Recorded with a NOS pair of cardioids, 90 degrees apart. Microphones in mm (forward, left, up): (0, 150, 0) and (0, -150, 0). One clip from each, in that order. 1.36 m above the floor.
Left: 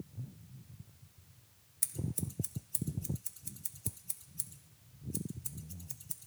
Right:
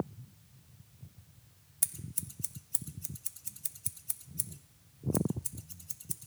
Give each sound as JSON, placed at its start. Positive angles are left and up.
{"t": 1.8, "sound": "scissors", "azimuth_deg": -20, "distance_m": 1.0}